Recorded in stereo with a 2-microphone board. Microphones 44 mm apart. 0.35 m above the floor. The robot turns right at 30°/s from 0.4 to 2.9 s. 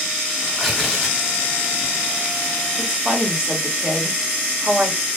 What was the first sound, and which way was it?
Tearing paper, 10° left (ahead or behind).